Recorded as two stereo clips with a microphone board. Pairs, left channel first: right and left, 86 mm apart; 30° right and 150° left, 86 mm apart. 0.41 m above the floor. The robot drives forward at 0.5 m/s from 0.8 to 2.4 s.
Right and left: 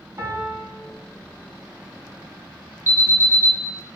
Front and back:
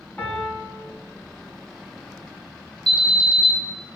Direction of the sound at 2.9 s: 155° left.